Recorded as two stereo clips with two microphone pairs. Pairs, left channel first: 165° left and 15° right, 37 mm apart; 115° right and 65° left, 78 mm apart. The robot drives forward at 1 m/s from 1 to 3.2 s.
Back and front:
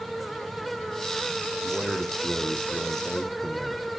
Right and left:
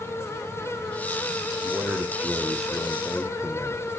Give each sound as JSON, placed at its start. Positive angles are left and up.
{"t": 1.6, "sound": "a man speaking", "azimuth_deg": 20, "distance_m": 1.4}